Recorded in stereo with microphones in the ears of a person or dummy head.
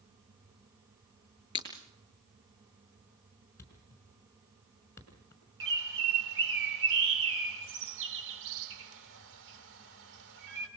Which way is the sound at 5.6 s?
70° right (ahead or behind).